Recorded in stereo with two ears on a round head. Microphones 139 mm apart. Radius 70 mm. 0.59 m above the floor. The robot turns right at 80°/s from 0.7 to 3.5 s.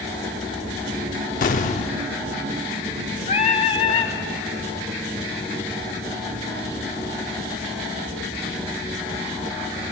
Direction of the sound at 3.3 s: 50° left (ahead or behind).